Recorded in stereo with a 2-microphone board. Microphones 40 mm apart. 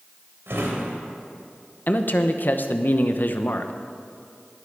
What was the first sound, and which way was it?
A drawer, 80° right.